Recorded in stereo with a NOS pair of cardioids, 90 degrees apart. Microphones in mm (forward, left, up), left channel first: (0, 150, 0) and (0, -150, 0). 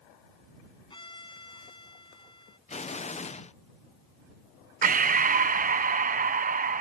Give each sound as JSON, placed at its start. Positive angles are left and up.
{"t": 0.9, "sound": "a violin", "azimuth_deg": 15}
{"t": 2.7, "sound": "an explosion", "azimuth_deg": 20}
{"t": 4.8, "sound": "breathing", "azimuth_deg": -25}